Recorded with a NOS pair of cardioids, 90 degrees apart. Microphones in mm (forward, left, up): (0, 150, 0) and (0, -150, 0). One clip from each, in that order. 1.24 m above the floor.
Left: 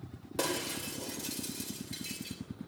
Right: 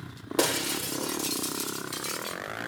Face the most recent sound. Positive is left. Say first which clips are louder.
# right 7 dB
turn(degrees=-60)